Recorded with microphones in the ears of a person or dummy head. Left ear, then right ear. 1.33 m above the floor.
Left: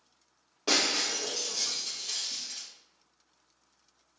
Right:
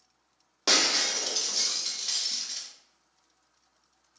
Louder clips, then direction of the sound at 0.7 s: Right 3 dB; 30° right (ahead or behind).